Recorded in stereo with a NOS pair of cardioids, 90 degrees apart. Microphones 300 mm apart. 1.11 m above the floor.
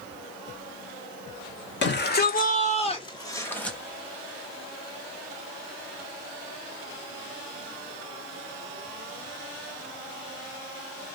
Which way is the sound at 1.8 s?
40° left.